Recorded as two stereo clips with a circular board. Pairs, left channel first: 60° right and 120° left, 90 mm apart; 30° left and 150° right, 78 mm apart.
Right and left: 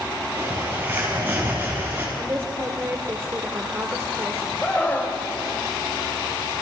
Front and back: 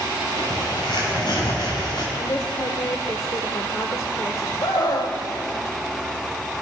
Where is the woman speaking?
60° left, 2 m.